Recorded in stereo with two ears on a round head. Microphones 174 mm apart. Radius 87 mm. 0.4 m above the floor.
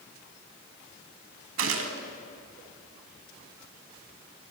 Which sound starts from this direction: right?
A gunshot, at 1.6 s.